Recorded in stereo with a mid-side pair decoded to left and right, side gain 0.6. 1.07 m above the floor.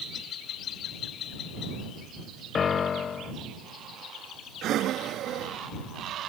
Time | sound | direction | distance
2.5 | a piano | 40° left | ?
4.6 | breathing | 55° right | ?